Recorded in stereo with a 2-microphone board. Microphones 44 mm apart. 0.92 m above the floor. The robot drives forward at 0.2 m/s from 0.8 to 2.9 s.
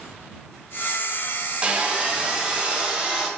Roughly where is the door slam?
No door slam in this recording.